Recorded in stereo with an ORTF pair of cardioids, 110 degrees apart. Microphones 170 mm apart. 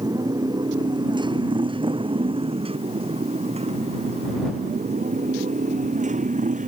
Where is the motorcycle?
25° right; by 6.7 s 50° right.